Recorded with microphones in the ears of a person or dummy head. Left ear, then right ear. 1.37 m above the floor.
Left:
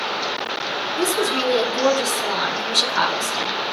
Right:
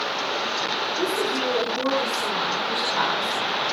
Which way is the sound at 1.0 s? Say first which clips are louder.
Left 6 dB; 90° left.